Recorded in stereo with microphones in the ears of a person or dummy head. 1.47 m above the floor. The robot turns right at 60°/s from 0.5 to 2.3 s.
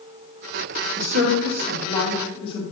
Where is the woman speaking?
50° right, 1.8 m; by 2.6 s 30° left, 1.8 m.